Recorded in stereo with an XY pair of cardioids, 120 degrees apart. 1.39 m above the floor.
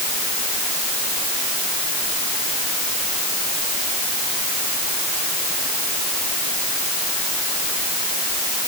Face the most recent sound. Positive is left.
No sound to turn to.